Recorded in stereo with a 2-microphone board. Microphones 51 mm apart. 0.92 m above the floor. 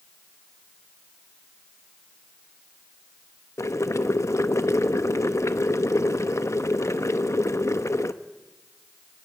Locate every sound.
3.6 s boiling: 70° left (ahead or behind), 0.8 m